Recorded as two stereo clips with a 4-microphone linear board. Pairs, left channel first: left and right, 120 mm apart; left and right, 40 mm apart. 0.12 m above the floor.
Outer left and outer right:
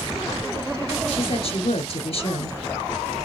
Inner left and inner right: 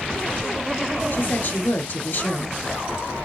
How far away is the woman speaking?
About 1.6 m.